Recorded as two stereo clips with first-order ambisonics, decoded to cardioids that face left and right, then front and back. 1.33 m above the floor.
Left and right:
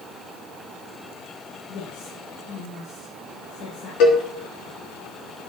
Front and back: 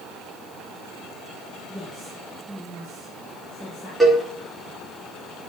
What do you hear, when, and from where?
1.7 s a woman speaking: 90° left, 6 m
4.0 s a cowbell: 95° left, 3 m